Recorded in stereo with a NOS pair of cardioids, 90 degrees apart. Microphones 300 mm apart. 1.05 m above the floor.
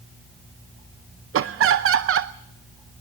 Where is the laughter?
50° right, 0.7 m.